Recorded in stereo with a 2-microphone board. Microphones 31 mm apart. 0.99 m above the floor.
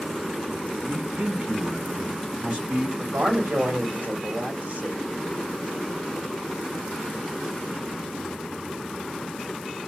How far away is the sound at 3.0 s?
About 1.2 m.